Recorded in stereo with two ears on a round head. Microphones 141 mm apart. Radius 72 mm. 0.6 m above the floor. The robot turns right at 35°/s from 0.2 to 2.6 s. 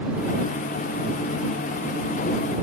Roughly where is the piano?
I don't hear a piano.